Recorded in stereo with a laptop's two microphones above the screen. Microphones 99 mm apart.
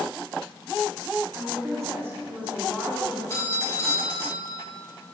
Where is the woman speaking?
40° right (ahead or behind), 1.6 m; by 3.2 s centre (ahead or behind), 1.6 m.